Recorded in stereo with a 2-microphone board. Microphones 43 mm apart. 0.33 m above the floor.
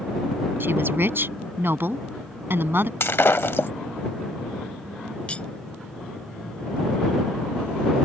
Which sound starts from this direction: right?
A woman speaking, at 0.6 s.